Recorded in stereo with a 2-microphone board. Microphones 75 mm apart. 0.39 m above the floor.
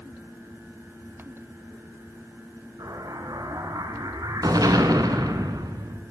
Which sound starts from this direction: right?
An explosion, at 2.8 s.